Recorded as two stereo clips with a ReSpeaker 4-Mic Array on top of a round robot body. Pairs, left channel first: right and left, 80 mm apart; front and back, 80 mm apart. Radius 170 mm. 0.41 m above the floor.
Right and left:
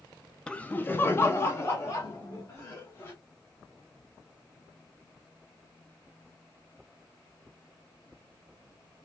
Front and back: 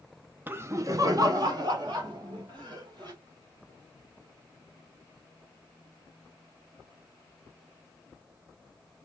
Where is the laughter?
155° right, 0.8 m; by 3.1 s 145° right, 3.5 m.